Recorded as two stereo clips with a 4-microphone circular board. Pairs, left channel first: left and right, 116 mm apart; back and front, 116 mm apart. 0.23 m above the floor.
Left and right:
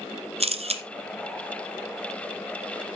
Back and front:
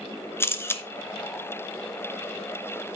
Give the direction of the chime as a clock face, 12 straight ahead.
I don't hear a chime.